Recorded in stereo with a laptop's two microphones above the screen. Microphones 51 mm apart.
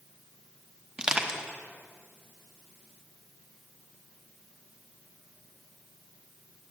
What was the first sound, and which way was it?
Crushing, 15° right (ahead or behind).